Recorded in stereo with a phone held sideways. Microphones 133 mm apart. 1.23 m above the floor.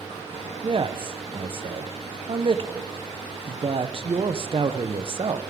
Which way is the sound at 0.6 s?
45° right (ahead or behind).